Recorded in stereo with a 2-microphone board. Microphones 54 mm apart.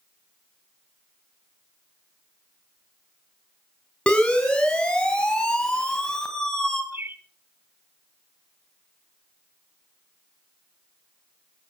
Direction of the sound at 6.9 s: 45° right (ahead or behind).